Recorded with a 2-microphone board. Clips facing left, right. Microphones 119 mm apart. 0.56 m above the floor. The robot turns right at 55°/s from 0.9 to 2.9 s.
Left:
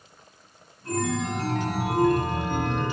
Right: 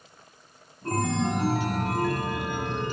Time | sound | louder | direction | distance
0.8 | a chime | right 1 dB | 45° right | 1.3 m